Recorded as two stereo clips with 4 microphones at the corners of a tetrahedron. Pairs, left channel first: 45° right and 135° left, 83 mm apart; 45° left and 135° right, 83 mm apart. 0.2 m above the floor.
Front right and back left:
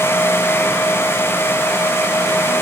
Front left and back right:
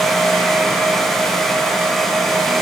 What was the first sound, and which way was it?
Only background noise.